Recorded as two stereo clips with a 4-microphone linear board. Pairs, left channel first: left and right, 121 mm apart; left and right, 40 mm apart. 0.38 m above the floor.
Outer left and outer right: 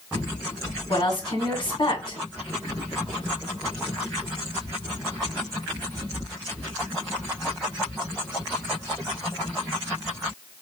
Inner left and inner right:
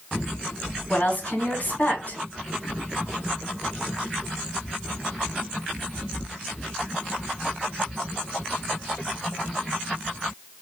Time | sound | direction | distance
0.9 | a woman speaking | 45° left (ahead or behind) | 2.5 m